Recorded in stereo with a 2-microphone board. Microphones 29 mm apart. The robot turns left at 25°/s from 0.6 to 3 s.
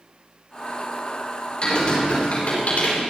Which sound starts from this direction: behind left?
Typing on a keyboard, at 1.6 s.